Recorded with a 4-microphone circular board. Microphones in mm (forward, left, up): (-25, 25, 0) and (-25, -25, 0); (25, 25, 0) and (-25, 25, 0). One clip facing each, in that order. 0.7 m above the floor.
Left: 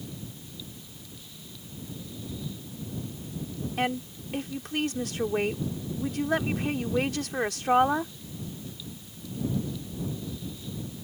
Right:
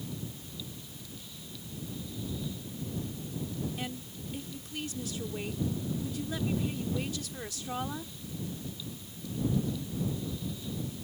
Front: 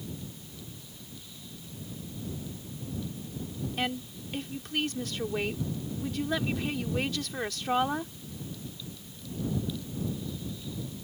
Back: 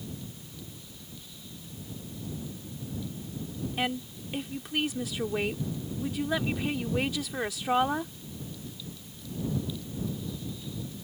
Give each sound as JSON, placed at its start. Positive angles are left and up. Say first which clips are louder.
{"t": 3.8, "sound": "a woman speaking", "louder": "left 10 dB, back 2 dB", "azimuth_deg": 95}